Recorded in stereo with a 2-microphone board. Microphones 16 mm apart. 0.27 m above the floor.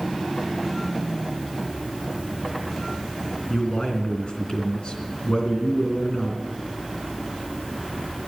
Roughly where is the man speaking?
Left.